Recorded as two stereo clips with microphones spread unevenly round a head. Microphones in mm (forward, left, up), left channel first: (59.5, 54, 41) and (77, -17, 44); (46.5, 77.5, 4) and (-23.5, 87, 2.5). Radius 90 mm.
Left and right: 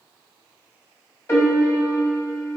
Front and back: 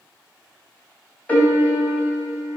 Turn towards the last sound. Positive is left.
turn(degrees=55)